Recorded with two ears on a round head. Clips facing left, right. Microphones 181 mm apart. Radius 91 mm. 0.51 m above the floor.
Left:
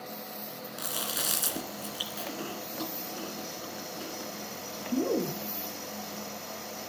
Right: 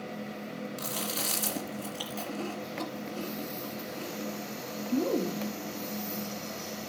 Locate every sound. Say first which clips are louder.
0.8 s chewing: right 3 dB; 15° left (ahead or behind), 2.5 m